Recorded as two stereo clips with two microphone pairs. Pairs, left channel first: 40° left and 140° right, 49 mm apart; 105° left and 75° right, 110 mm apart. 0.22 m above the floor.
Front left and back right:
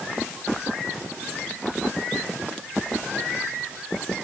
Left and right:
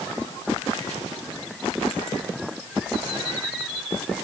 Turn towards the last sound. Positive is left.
No sound to turn to.